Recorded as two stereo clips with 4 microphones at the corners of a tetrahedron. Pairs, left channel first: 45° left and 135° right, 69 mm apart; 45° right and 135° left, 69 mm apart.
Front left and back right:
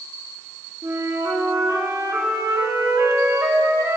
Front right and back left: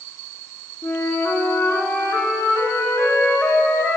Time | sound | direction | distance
0.8 | a flute | 100° right | 2.5 m